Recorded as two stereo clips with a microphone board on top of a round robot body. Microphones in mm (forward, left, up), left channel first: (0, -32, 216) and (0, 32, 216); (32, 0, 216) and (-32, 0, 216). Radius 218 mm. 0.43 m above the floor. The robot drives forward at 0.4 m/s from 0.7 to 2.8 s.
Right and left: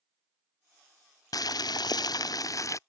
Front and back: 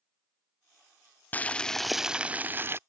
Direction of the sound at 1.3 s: 65° right.